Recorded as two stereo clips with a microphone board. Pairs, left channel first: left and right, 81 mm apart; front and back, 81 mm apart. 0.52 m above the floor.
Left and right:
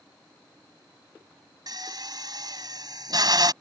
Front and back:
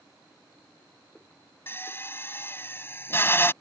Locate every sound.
1.7 s a drill: 60° right